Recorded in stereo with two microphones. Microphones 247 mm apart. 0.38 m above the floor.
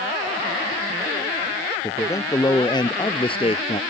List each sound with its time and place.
1.8 s a man speaking: 10° left (ahead or behind); by 3.8 s 25° left (ahead or behind)